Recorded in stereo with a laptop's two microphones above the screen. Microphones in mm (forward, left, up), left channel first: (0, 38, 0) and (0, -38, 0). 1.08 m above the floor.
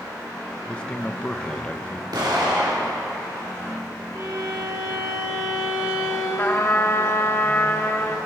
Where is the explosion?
80° right, 3 m.